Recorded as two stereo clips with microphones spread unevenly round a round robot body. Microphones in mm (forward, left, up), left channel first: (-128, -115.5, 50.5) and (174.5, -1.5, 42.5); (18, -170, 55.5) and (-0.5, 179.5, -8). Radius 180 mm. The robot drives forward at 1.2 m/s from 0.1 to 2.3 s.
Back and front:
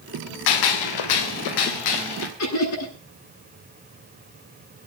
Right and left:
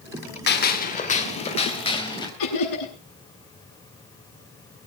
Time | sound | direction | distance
0.5 | a gunshot | 150° right | 2 m
2.4 | laughter | 115° right | 9 m